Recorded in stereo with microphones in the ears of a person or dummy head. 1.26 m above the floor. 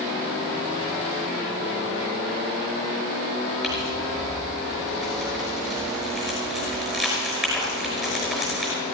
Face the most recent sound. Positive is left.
turn(degrees=0)  # may be behind; listen again after turning